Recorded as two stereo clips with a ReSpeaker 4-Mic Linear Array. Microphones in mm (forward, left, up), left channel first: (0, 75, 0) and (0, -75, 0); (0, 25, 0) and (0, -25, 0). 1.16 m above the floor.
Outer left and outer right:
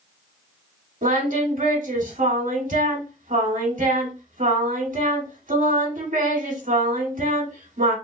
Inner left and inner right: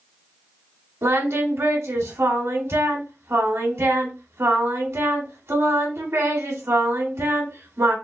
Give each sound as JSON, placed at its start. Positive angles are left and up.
{"t": 1.0, "sound": "singing", "side_deg": -65, "distance_m": 1.5}